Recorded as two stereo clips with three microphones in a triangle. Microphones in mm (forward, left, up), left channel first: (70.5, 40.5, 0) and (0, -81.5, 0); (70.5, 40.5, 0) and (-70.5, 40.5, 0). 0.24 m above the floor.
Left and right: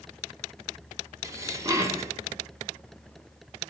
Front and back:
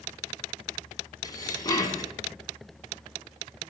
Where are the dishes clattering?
60° right, 1.3 m.